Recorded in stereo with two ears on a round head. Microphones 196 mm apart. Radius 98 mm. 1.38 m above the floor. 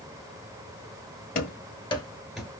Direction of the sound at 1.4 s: 45° left (ahead or behind).